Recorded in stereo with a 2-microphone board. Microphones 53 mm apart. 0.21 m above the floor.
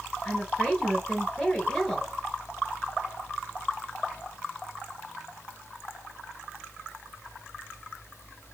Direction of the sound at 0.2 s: 10° left (ahead or behind).